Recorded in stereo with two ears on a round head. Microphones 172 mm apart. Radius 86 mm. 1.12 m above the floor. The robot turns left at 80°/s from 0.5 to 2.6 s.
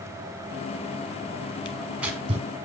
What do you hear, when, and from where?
1.6 s tearing paper: 25° left (ahead or behind), 1.8 m; by 2.5 s 40° right (ahead or behind), 1.8 m